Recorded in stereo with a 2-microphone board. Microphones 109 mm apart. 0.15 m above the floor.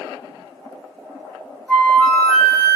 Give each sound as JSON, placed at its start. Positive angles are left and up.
{"t": 1.7, "sound": "a flute", "side_deg": 10, "distance_m": 0.5}